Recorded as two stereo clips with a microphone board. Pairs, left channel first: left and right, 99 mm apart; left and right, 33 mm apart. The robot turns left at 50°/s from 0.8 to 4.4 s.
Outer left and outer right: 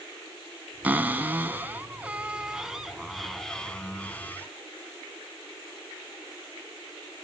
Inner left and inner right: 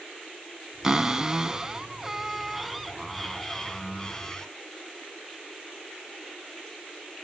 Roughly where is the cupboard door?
Centre.